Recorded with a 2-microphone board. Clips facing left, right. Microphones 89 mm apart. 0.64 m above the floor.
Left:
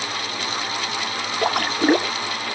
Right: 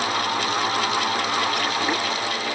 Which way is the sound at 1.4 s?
50° left (ahead or behind).